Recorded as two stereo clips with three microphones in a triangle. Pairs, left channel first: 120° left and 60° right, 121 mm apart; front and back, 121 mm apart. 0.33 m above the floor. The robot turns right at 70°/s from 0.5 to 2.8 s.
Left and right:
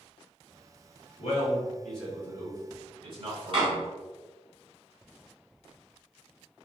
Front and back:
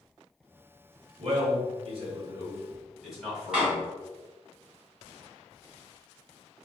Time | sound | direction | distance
1.2 | a man speaking | 155° left | 1.9 m
3.5 | a door slam | 100° right | 1.8 m